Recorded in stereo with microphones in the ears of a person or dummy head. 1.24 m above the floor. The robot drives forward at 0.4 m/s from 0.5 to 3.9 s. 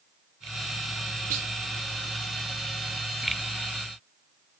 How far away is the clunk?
About 1.0 m.